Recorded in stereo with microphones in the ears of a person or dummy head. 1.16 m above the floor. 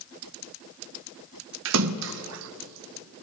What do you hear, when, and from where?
1.6 s a splash: 70° right (ahead or behind), 0.6 m